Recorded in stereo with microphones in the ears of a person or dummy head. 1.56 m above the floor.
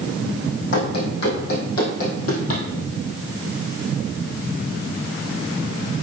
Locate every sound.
0.7 s running footsteps: 60° left (ahead or behind), 4.5 m; by 2.6 s 50° left (ahead or behind), 3 m